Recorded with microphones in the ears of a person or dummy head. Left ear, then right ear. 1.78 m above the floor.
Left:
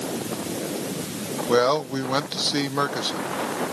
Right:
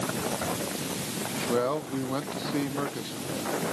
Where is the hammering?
No hammering in this recording.